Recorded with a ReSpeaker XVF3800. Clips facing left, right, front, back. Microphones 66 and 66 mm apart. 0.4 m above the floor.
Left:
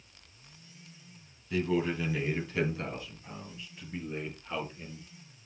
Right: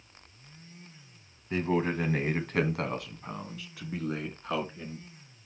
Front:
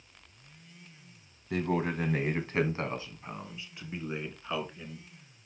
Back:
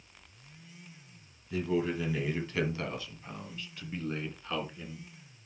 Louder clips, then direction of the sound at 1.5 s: Right 1 dB, even; 30° right.